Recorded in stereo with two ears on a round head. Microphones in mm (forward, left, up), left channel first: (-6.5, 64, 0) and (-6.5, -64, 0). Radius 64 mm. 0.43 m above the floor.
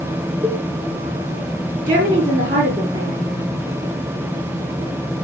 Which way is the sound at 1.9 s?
55° right (ahead or behind).